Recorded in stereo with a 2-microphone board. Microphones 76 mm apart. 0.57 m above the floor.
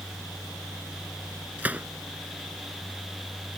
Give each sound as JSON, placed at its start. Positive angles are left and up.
{"t": 1.6, "sound": "a gunshot", "side_deg": -20}